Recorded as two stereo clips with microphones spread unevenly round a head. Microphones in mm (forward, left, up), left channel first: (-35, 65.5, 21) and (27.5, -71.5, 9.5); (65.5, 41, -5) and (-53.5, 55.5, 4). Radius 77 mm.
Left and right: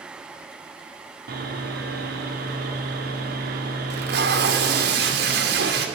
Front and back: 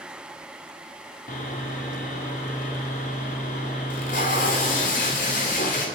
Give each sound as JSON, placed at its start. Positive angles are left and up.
{"t": 1.3, "sound": "sawing", "azimuth_deg": -40, "distance_m": 3.5}
{"t": 3.9, "sound": "tape being pulled", "azimuth_deg": -50, "distance_m": 3.0}